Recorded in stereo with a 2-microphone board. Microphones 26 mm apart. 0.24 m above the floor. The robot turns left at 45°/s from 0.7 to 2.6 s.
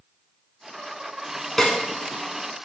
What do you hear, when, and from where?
1.6 s a snare drum: 10° left (ahead or behind), 0.8 m; by 1.8 s 20° left (ahead or behind), 0.8 m